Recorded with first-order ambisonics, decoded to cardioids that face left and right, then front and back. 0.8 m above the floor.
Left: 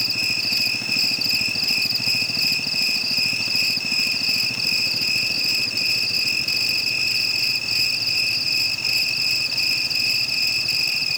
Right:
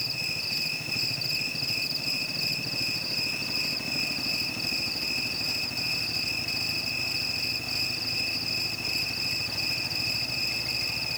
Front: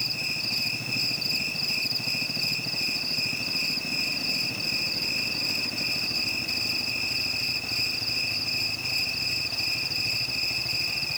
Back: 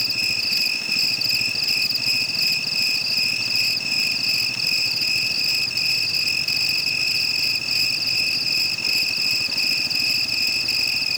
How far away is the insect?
About 0.7 m.